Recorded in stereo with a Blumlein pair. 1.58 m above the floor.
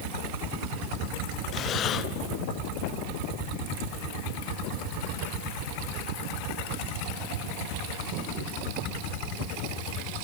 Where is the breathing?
30° left, 0.9 m.